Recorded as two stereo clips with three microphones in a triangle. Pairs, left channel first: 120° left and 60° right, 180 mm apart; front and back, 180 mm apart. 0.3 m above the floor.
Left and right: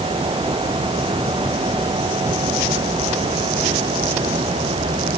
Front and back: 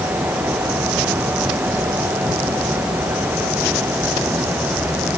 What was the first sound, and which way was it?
Only background noise.